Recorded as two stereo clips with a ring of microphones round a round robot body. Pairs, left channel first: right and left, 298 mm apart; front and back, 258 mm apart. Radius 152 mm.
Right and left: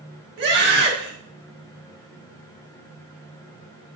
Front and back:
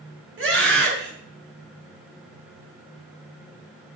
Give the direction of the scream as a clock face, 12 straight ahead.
7 o'clock.